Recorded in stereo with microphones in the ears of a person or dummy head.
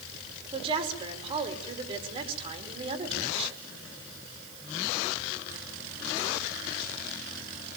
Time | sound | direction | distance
0.5 | a woman speaking | 35° right (ahead or behind) | 5.5 m